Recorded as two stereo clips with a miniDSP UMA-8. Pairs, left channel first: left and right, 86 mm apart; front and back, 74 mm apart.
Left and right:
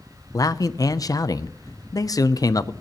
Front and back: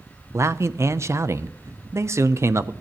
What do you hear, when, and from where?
0.3 s a man speaking: 130° left, 0.6 m